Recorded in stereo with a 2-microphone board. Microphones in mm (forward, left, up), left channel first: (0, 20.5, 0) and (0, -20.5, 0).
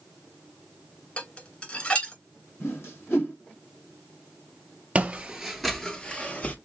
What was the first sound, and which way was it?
Dishes clattering, 30° left (ahead or behind).